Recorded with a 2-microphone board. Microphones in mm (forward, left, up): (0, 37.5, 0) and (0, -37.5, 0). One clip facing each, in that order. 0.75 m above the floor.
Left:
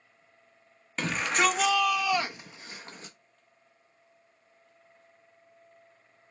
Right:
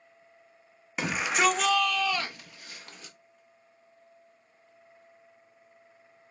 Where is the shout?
10° right (ahead or behind), 1.0 m; by 3.1 s 30° left (ahead or behind), 1.0 m.